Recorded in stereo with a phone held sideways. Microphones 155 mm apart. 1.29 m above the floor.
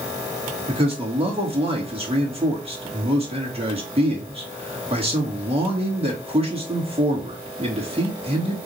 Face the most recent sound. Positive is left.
turn(degrees=-40)  # may be behind; listen again after turning